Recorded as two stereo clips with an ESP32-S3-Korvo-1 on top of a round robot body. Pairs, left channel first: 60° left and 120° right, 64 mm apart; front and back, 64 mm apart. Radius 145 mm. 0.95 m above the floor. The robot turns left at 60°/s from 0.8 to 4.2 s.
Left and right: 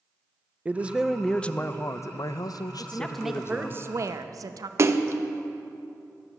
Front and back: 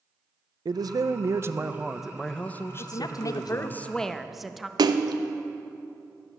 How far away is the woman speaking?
About 0.9 m.